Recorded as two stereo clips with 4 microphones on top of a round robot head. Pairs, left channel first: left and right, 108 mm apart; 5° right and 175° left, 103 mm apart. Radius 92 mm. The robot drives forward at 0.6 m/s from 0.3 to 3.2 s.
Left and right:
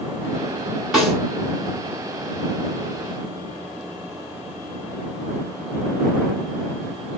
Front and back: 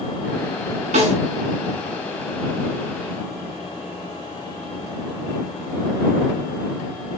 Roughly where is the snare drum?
Behind.